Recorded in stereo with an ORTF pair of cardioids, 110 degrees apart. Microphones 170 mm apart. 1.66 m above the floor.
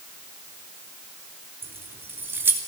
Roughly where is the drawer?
No drawer in this recording.